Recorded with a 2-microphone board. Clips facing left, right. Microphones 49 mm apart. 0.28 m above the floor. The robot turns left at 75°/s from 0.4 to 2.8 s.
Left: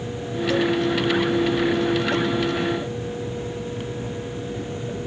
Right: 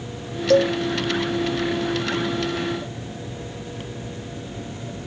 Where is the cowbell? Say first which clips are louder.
Right 5 dB; 70° right (ahead or behind); by 0.8 s 55° right (ahead or behind).